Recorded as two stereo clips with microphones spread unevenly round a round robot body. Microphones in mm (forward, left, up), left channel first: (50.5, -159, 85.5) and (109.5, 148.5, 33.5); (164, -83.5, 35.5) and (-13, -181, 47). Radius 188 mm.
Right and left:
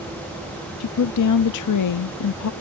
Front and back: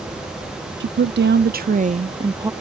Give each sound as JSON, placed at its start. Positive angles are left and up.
{"t": 0.8, "sound": "a woman speaking", "azimuth_deg": -140}